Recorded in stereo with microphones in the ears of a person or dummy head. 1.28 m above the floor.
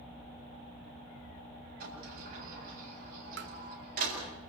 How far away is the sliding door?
About 8 m.